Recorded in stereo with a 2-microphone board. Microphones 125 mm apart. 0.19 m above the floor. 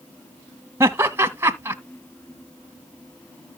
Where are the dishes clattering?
I don't hear dishes clattering.